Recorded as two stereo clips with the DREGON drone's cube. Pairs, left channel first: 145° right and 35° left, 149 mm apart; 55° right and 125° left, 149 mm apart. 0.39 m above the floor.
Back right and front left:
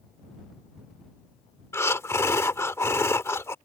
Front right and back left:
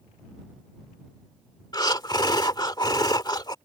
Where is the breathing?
90° right.